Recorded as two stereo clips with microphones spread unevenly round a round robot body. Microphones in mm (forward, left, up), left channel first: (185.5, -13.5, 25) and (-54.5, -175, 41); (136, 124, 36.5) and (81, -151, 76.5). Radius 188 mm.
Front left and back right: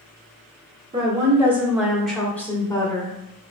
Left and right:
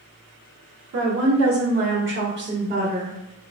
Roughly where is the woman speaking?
Right.